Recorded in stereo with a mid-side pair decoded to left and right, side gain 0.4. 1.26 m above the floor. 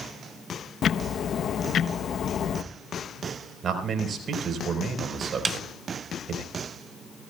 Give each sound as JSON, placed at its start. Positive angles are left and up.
{"t": 0.8, "sound": "ticking", "azimuth_deg": 60, "distance_m": 0.8}
{"t": 3.6, "sound": "a man speaking", "azimuth_deg": -65, "distance_m": 4.0}
{"t": 5.5, "sound": "a snare drum", "azimuth_deg": -40, "distance_m": 0.8}